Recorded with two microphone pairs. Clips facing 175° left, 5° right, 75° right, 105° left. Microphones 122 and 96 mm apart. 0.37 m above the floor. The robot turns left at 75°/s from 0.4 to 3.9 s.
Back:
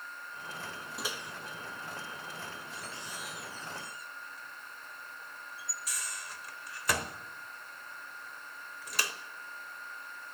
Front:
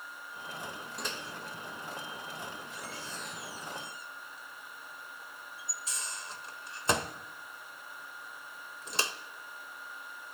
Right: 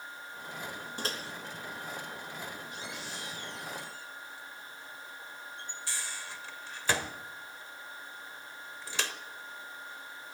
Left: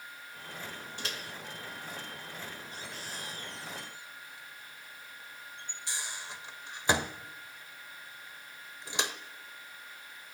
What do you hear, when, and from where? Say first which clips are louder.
1.0 s a microwave: even, right 4 dB; 95° right, 0.9 m; by 9.1 s 45° left, 0.9 m